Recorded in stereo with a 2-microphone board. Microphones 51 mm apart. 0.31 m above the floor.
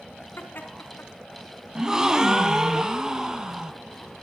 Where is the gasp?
10° right (ahead or behind), 1.9 m.